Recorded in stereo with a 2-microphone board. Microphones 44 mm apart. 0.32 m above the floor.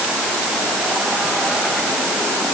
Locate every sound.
Only background noise.